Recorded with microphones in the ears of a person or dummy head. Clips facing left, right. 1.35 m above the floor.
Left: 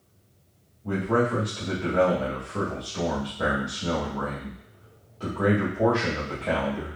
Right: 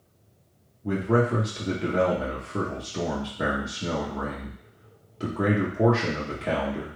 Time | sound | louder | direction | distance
0.8 | a man speaking | right 1 dB | 25° right (ahead or behind) | 0.8 m